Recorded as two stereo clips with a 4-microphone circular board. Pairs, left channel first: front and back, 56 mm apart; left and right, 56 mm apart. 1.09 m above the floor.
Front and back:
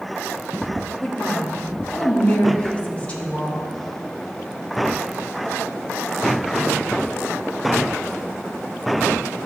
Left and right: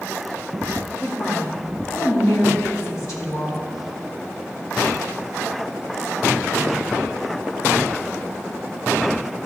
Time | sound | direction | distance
1.0 | a woman speaking | 65° left | 2 m